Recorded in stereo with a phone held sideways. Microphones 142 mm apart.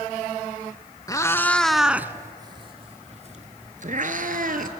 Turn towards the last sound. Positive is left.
turn(degrees=-65)  # may be behind; listen again after turning